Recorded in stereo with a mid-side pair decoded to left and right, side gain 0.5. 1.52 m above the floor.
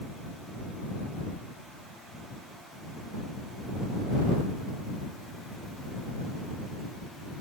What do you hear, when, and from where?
Only background noise.